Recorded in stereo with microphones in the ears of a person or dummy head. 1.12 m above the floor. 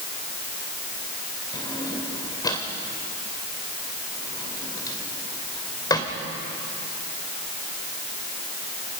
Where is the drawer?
15° left (ahead or behind), 2.5 m.